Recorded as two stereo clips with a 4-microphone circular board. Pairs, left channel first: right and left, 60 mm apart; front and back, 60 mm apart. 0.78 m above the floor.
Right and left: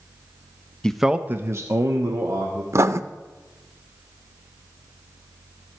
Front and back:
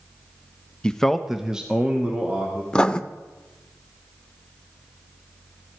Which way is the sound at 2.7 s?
70° left.